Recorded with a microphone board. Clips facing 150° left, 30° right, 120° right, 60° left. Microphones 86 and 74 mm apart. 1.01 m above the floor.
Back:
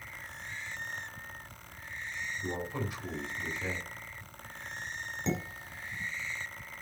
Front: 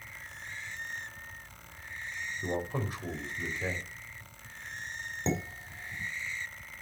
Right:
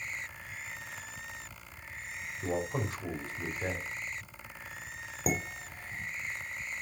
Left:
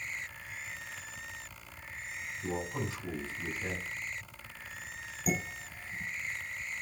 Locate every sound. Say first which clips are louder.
2.4 s a man speaking: front 4 dB, right 3 dB; 80° right, 3.5 m
5.3 s dishes clattering: front 2 dB, right 1 dB; 90° right, 2.5 m